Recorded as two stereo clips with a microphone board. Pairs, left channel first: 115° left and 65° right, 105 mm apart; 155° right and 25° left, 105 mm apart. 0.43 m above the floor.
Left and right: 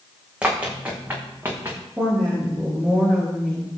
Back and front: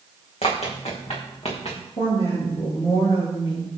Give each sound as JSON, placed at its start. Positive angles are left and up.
{"t": 0.4, "sound": "running footsteps", "azimuth_deg": -145, "distance_m": 2.5}
{"t": 2.0, "sound": "a woman speaking", "azimuth_deg": -150, "distance_m": 4.0}